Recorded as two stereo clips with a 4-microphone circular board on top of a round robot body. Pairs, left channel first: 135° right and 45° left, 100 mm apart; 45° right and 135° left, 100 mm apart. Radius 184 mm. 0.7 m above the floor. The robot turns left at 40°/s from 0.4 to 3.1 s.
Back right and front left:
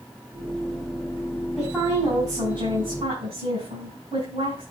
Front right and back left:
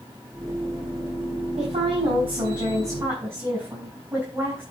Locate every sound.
1.6 s a woman speaking: 125° left, 6 m; by 4.6 s 65° left, 6 m